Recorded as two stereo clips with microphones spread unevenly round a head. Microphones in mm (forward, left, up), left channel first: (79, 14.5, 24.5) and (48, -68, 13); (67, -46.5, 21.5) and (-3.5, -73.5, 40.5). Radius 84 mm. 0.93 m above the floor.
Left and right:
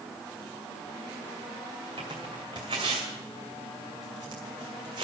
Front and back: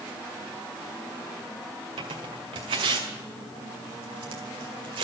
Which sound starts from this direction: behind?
Tearing paper, at 2.0 s.